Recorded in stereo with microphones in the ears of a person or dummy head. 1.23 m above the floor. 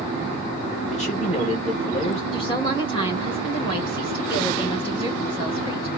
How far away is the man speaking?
About 1.1 m.